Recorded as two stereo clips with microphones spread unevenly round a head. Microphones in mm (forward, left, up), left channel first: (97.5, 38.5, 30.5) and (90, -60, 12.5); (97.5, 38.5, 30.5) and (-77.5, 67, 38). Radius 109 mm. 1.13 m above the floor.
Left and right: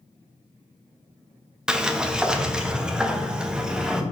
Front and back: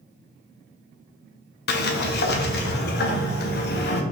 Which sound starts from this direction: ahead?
A sliding door, at 1.7 s.